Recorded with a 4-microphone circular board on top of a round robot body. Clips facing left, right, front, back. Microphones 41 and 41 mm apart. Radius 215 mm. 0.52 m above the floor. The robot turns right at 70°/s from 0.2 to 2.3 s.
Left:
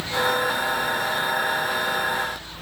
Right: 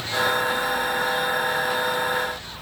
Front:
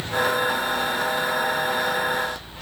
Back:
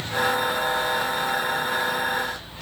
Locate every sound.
Only background noise.